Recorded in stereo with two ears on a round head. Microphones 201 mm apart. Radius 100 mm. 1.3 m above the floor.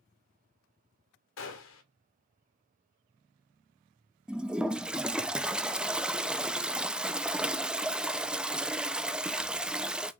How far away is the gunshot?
About 2 m.